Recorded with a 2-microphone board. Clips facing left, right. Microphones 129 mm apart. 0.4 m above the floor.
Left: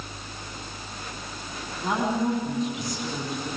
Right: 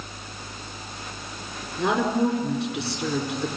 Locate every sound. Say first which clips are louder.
1.8 s a woman speaking: right 4 dB; 70° right (ahead or behind), 4.5 m